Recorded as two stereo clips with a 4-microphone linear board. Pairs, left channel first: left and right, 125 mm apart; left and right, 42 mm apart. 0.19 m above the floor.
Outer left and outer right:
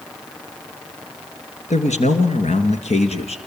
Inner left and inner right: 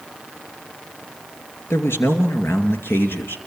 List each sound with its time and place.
1.7 s a man speaking: 70° left (ahead or behind), 2.5 m; by 3.4 s 55° left (ahead or behind), 2 m